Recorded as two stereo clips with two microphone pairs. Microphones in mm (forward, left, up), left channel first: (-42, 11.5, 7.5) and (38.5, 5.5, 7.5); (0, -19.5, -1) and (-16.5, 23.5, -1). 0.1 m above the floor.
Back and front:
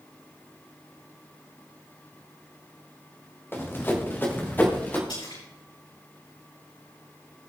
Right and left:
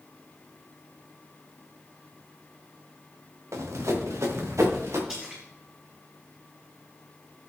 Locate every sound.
3.5 s running footsteps: 110° left, 2.0 m; by 5.0 s 105° left, 3.5 m
5.1 s a splash: straight behind, 5.5 m